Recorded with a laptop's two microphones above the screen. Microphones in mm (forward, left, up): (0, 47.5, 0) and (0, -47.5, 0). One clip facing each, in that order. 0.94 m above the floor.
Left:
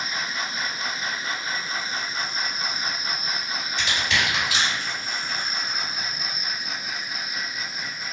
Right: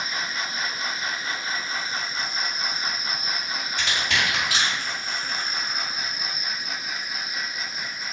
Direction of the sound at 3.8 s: 60° right (ahead or behind).